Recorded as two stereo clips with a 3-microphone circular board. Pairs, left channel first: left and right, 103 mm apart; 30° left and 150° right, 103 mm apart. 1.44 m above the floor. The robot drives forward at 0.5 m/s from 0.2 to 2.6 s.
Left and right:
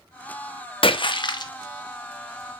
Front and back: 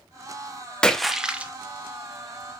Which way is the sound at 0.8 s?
110° left.